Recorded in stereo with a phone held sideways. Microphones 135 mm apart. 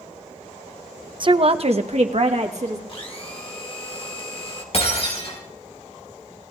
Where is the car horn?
I don't hear a car horn.